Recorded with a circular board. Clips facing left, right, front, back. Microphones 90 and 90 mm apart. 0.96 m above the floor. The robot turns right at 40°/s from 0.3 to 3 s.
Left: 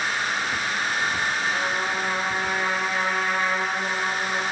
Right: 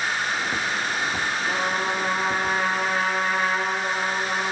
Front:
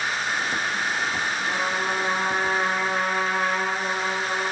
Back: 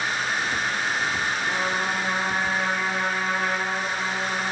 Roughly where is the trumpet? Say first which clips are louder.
Right 1 dB, even; right.